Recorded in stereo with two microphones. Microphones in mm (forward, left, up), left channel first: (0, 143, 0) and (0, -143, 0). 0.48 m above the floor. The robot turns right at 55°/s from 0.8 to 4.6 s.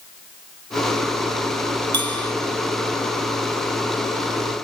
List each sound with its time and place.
1.9 s a bell: 75° right (ahead or behind)